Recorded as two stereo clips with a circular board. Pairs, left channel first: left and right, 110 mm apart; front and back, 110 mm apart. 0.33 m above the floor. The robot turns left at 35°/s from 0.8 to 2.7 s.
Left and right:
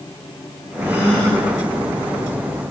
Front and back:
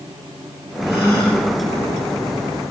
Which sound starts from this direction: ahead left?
A gasp, at 0.8 s.